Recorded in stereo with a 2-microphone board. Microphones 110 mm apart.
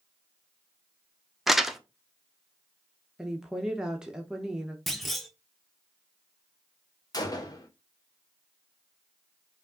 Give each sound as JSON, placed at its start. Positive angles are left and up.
{"t": 1.5, "sound": "crumpling", "side_deg": 0, "distance_m": 0.5}
{"t": 3.2, "sound": "a woman speaking", "side_deg": -5, "distance_m": 0.7}
{"t": 4.9, "sound": "a clunk", "side_deg": 0, "distance_m": 0.8}
{"t": 7.1, "sound": "a gunshot", "side_deg": 35, "distance_m": 0.8}